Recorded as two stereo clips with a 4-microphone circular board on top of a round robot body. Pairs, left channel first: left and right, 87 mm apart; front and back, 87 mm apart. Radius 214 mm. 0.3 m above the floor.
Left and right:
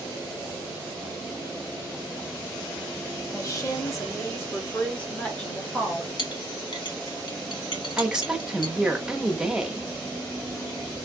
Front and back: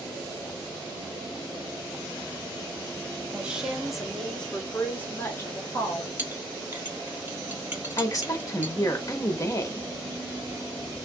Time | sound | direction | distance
3.3 | a woman speaking | 110° left | 1.6 m
6.2 | a clink | 115° left | 1.5 m
8.0 | a woman speaking | 10° right | 1.1 m